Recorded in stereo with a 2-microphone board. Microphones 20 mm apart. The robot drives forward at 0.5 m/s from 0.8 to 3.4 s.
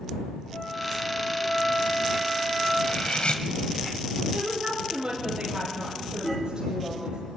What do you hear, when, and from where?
0.5 s a flute: 80° left, 7 m; by 2.7 s 85° left, 7 m
2.8 s cutlery clinking: 70° left (ahead or behind), 1.5 m; by 3.4 s 65° left (ahead or behind), 1.5 m
4.3 s a woman speaking: 40° right (ahead or behind), 9 m